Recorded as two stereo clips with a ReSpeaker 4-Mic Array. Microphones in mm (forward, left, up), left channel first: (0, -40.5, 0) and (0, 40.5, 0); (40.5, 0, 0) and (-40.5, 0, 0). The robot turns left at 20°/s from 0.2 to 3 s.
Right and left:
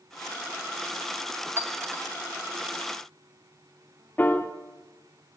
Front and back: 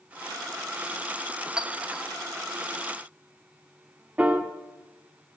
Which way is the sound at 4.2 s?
125° right.